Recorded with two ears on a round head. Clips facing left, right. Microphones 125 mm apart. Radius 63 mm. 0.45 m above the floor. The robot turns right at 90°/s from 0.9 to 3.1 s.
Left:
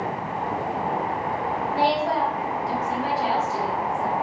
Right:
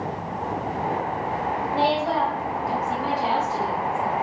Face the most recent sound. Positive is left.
turn(degrees=90)